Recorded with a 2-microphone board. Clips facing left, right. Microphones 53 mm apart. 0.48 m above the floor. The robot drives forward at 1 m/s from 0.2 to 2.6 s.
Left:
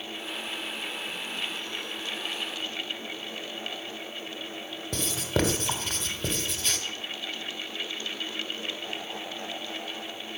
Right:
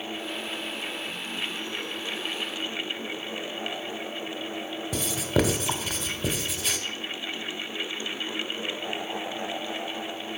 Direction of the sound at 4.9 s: 5° right (ahead or behind).